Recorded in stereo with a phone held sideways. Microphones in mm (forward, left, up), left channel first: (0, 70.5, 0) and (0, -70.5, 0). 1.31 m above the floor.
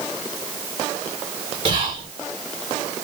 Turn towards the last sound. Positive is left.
turn(degrees=-50)  # may be behind; listen again after turning